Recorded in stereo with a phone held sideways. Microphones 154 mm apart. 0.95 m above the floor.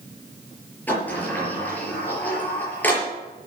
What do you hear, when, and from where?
0.9 s a sliding door: 10° left (ahead or behind), 5.5 m